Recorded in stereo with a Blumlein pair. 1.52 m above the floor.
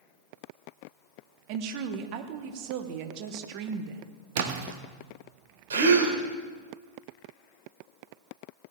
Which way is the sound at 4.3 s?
55° right.